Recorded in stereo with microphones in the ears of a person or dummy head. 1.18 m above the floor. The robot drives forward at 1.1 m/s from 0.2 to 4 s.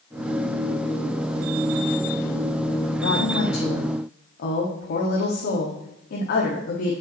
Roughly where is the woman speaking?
Left.